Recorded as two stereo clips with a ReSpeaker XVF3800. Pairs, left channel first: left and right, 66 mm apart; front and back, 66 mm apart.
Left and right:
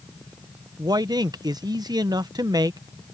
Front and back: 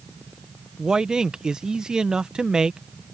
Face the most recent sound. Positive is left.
turn(degrees=-100)